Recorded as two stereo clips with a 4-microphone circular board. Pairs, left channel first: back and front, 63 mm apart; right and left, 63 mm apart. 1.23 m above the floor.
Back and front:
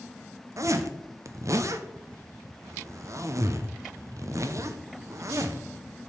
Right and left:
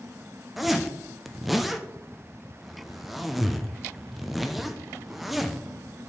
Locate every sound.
0.6 s a zipper: 5° left, 0.5 m